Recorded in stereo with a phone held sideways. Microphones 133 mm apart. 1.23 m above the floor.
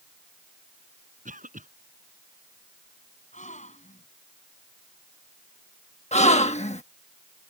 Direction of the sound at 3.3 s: 65° left (ahead or behind).